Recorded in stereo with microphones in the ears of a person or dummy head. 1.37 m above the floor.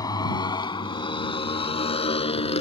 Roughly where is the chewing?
No chewing in this recording.